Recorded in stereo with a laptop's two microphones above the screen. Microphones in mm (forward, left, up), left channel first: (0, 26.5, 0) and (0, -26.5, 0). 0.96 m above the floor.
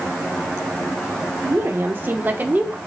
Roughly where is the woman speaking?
Right.